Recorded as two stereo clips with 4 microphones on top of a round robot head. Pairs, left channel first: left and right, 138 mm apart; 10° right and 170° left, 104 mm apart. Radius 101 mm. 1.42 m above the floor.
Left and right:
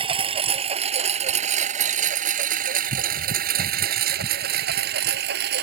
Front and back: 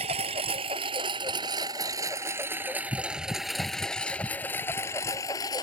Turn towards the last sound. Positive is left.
turn(degrees=-80)